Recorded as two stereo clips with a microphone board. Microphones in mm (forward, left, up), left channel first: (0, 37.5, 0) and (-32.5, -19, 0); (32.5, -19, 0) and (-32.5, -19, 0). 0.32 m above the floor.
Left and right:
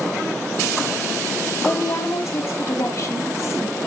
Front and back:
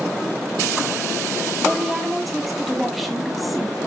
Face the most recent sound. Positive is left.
turn(degrees=90)